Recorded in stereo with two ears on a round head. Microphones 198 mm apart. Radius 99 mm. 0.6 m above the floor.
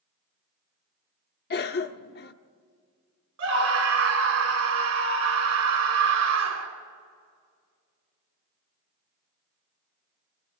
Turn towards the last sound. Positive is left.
turn(degrees=-55)  # may be behind; listen again after turning